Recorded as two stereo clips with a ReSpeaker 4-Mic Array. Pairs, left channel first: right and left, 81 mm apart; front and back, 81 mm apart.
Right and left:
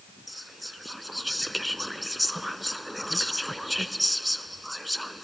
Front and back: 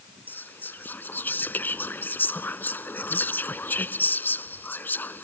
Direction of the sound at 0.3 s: Straight ahead.